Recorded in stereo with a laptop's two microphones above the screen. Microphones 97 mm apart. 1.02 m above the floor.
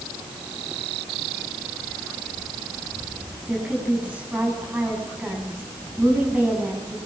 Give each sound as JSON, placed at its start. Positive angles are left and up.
{"t": 3.5, "sound": "a woman speaking", "side_deg": -15, "distance_m": 9.5}